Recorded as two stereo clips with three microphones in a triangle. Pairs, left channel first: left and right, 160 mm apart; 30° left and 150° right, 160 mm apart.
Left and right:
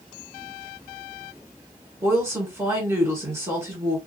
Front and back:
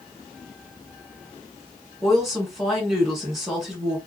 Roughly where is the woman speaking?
Ahead right.